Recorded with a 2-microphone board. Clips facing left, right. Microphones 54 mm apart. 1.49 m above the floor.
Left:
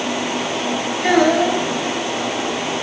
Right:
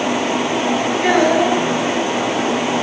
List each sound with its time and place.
1.0 s a child speaking: 20° right (ahead or behind), 6 m